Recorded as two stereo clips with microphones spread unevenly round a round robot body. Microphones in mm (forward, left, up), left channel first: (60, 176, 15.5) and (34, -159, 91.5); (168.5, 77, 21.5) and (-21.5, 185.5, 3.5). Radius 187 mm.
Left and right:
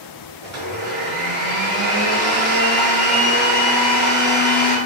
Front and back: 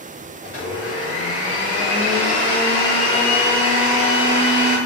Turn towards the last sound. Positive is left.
turn(degrees=-140)